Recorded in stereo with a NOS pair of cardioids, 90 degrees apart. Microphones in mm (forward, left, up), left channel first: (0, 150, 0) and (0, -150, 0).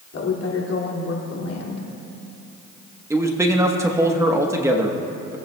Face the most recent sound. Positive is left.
turn(degrees=-10)